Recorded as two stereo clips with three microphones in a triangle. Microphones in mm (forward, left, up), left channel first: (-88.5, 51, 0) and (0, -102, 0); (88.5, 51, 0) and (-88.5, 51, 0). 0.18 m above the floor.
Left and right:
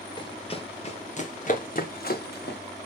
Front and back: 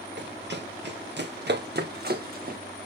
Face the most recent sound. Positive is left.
turn(degrees=140)